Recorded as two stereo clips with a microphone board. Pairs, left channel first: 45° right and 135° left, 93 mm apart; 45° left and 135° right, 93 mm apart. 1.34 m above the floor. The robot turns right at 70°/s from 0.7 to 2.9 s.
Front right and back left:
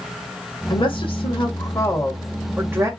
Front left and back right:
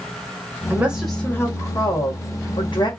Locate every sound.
0.7 s a woman speaking: 70° right, 1.6 m; by 2.9 s 85° left, 1.6 m